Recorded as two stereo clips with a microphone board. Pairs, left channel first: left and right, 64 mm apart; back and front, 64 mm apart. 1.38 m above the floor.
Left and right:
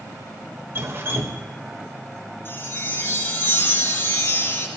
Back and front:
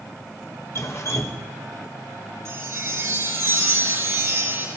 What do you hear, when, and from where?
0.8 s dripping: 140° right, 1.3 m
2.5 s a chime: 40° left, 4 m